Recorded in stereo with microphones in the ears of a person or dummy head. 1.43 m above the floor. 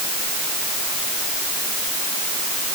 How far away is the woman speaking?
No woman speaking in this recording.